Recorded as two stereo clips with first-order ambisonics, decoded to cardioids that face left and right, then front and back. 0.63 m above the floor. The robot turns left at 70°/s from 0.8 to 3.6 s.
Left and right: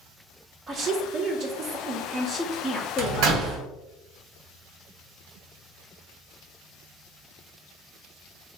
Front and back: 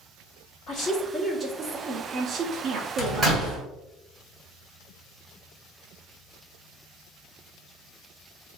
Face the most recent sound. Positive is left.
turn(degrees=-135)